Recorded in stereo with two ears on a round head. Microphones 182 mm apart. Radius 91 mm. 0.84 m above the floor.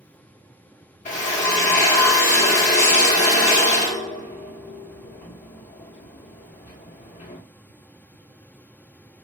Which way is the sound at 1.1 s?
35° left (ahead or behind).